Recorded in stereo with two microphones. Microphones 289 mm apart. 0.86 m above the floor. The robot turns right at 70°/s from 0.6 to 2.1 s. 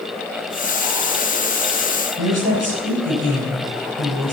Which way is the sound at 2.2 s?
60° right (ahead or behind).